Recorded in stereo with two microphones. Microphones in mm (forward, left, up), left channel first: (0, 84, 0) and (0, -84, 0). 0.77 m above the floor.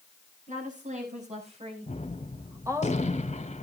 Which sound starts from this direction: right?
A woman speaking, at 0.5 s.